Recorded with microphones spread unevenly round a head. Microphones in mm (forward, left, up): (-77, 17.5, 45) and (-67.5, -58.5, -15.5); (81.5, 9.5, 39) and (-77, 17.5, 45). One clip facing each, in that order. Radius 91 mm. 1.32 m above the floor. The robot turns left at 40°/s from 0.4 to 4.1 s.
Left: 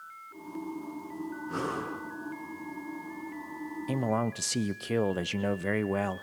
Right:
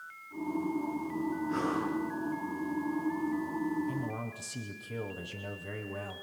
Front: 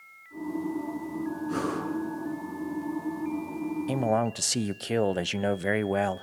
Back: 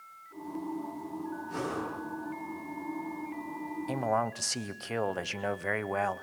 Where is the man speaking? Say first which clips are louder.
Left 7 dB, front 3 dB; 50° left, 0.7 m; by 6.2 s 45° left, 0.7 m.